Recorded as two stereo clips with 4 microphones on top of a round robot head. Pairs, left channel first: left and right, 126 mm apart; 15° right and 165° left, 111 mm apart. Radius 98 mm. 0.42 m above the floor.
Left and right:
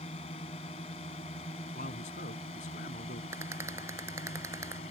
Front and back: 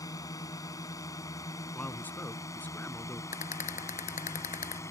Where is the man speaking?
60° left.